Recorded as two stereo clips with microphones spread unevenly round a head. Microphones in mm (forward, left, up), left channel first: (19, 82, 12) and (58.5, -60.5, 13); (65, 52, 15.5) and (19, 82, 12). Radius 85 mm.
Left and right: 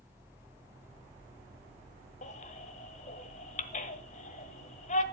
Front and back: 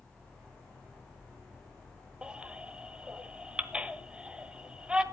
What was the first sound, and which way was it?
A baby crying, 75° left.